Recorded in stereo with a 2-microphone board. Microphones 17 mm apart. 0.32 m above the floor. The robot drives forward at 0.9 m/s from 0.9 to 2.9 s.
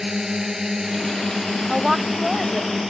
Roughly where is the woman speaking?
Right.